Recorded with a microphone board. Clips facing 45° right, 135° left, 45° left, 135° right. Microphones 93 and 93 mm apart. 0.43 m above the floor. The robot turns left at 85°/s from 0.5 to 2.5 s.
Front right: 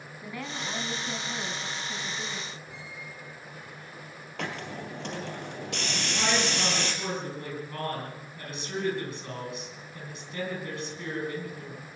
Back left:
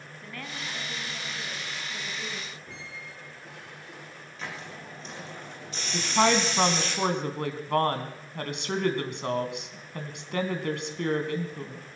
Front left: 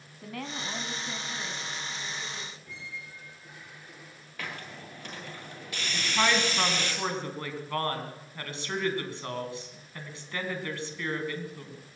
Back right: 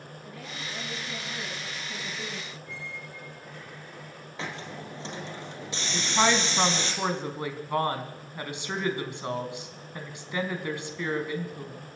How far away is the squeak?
About 6 m.